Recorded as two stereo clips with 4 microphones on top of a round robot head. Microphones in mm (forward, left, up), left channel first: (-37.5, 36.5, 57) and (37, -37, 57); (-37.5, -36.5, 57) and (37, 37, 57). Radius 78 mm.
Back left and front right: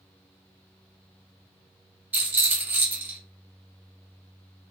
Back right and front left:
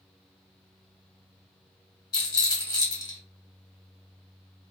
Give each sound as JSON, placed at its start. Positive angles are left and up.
{"t": 2.1, "sound": "a rattle", "azimuth_deg": -105, "distance_m": 1.2}